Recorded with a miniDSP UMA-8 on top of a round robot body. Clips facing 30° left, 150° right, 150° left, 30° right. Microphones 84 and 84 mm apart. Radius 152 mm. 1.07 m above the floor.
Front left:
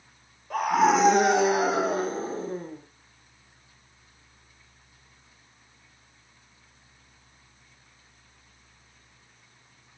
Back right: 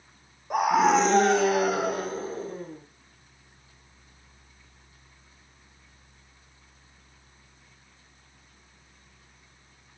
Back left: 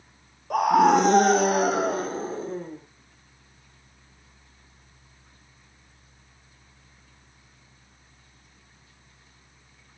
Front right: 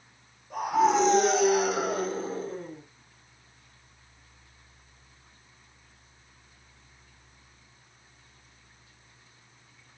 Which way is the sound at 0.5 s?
135° left.